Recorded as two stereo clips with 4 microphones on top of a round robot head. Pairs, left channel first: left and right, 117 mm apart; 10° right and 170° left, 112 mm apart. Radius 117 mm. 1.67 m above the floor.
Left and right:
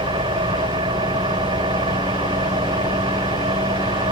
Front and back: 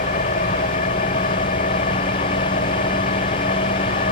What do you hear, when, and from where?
0.0 s an engine running: 30° right